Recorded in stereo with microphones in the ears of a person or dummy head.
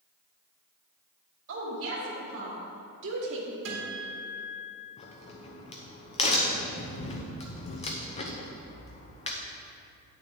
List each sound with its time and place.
1.5 s a woman speaking: 75° right (ahead or behind), 2.5 m; by 3.5 s 70° right (ahead or behind), 1.3 m
3.6 s a guitar: 80° right, 2 m
5.0 s a crack: 35° left (ahead or behind), 0.8 m